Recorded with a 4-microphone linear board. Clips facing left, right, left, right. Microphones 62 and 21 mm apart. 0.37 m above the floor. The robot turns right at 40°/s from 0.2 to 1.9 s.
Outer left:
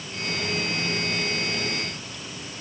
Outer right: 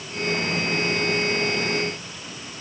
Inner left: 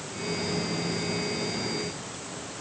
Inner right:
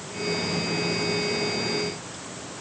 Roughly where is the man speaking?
No man speaking in this recording.